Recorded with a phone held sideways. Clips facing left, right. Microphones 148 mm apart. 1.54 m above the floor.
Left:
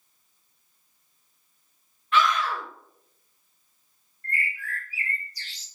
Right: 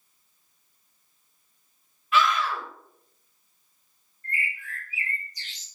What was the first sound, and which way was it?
A scream, 5° right (ahead or behind).